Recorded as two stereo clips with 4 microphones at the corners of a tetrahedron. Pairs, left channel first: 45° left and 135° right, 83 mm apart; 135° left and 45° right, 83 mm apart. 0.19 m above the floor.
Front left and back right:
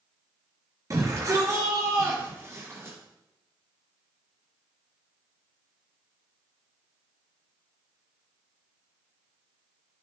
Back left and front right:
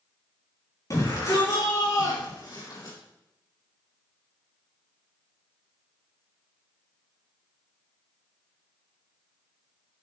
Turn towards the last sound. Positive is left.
turn(degrees=170)